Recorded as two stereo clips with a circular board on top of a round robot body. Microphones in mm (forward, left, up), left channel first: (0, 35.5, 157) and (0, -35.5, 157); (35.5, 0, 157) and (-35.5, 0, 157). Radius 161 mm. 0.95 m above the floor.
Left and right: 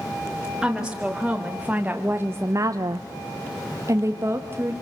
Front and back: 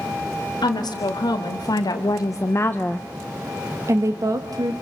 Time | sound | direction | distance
0.6 | a woman speaking | 5° right | 2.5 m